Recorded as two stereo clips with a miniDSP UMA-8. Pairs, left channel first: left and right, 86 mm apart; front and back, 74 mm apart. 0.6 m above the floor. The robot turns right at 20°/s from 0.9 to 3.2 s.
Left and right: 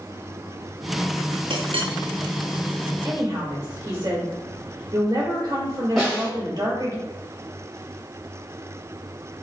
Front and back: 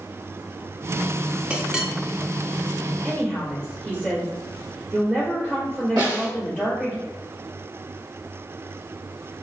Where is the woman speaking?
135° right, 2.0 m; by 7.0 s 130° right, 2.0 m.